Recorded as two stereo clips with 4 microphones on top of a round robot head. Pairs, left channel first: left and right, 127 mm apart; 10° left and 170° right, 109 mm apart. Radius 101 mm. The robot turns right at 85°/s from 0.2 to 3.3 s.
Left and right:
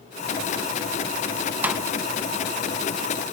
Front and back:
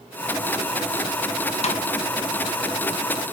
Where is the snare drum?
15° right, 1.0 m; by 1.9 s 5° left, 1.0 m.